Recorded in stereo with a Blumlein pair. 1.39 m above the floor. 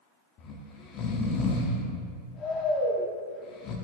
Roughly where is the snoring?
Ahead left.